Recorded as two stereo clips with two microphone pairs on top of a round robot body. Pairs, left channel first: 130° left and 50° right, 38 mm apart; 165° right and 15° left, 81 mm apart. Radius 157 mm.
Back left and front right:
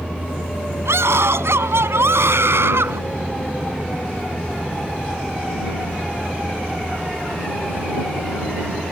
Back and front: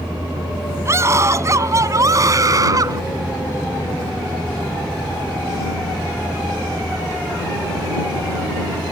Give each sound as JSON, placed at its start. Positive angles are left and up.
{"t": 0.8, "sound": "a scream", "azimuth_deg": -45}